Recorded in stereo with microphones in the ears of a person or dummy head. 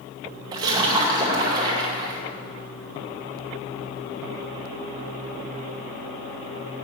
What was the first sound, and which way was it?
A splash, 25° right (ahead or behind).